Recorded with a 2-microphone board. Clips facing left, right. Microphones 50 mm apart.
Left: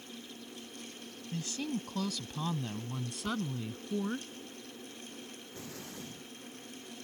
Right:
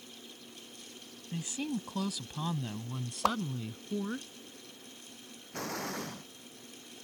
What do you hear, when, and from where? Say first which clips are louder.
1.3 s a woman speaking: right 1 dB; 15° right (ahead or behind); by 4.2 s 5° left (ahead or behind)
3.2 s a whoosh: right 7 dB; 80° right
5.5 s an explosion: right 11 dB; 70° right (ahead or behind)